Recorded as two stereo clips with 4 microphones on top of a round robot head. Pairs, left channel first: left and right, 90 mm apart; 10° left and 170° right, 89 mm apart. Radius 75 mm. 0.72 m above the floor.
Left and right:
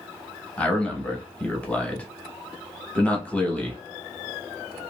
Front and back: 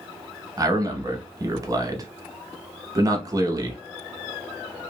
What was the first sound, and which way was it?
A man speaking, 160° left.